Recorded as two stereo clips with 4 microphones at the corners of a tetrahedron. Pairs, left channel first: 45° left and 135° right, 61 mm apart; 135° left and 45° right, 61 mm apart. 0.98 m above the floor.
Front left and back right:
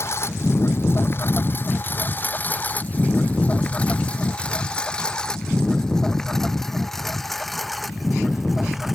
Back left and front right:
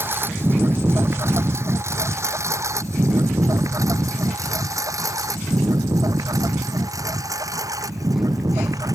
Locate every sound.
0.0 s a lawn mower: 5° left; by 8.9 s 50° right